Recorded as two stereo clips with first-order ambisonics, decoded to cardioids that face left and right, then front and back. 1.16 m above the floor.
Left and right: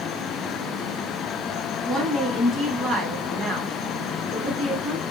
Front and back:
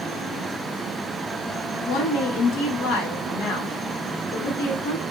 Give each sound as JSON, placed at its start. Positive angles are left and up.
{"t": 1.9, "sound": "a woman speaking", "azimuth_deg": -10, "distance_m": 1.4}